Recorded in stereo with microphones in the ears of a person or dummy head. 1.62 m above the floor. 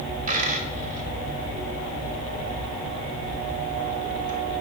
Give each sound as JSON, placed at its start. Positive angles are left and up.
{"t": 0.3, "sound": "a dropped coin", "side_deg": -50, "distance_m": 1.8}